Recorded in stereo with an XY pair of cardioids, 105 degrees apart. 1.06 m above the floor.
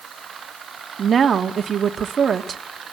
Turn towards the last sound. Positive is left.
turn(degrees=-50)